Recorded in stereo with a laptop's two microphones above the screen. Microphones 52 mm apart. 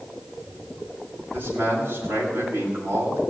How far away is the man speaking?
About 6 m.